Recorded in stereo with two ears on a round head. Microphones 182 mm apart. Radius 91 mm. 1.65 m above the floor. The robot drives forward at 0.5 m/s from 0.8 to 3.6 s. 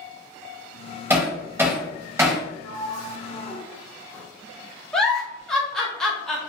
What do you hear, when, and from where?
1.1 s hammering: 10° right (ahead or behind), 1.9 m; by 2.5 s 15° right (ahead or behind), 1.4 m
2.6 s a sliding door: 20° left (ahead or behind), 1.8 m; by 4.2 s 15° left (ahead or behind), 2 m
4.9 s a giggle: 5° left (ahead or behind), 0.9 m